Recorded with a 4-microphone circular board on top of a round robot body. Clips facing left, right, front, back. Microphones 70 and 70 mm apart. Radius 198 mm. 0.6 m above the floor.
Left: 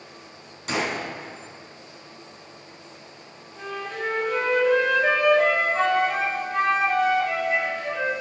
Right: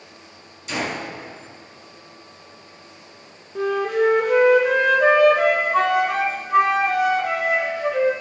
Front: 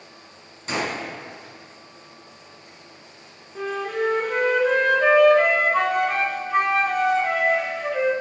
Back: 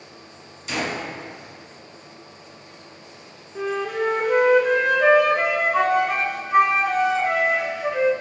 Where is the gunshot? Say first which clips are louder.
Even, even; 50° left, 4 m.